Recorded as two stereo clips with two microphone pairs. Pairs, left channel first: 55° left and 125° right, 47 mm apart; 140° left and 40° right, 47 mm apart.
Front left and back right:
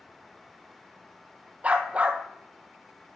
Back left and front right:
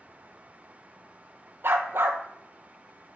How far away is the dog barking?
About 0.7 m.